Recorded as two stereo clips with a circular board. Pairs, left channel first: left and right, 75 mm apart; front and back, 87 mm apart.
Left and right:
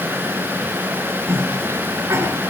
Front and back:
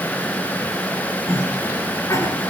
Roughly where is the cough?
Ahead right.